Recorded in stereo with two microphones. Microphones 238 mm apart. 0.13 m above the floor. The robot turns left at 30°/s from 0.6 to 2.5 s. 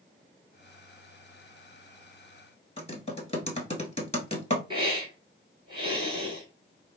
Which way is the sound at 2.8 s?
30° left (ahead or behind).